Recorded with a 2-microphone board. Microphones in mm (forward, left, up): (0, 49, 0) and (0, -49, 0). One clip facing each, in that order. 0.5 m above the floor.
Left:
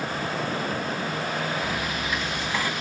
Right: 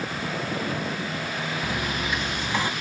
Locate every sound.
1.6 s a dropped coin: 20° right (ahead or behind), 0.5 m